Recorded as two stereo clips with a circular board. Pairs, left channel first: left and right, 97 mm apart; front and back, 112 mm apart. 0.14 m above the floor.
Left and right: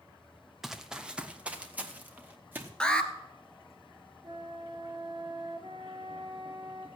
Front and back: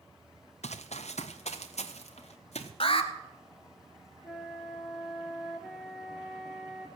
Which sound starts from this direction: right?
A flute, at 4.2 s.